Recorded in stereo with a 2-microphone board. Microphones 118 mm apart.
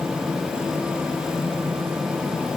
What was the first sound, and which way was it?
Only background noise.